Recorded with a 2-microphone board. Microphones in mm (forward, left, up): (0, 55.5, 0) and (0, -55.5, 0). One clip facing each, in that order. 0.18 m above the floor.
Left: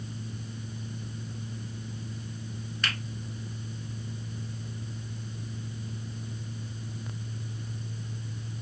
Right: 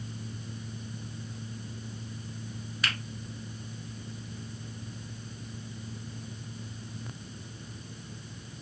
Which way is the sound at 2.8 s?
5° right (ahead or behind).